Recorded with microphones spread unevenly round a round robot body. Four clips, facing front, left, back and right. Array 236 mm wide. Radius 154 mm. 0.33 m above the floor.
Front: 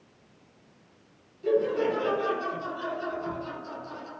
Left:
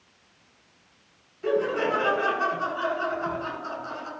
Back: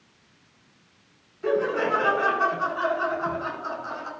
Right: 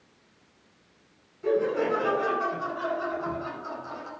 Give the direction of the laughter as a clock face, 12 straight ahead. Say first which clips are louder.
Even, back 1 dB; 7 o'clock.